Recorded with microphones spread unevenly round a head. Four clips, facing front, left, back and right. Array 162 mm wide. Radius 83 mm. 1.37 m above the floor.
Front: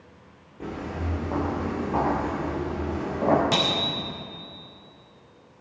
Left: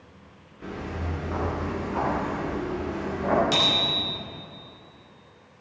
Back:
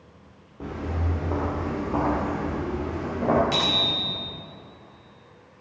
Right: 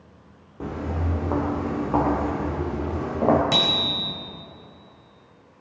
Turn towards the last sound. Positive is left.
turn(degrees=-50)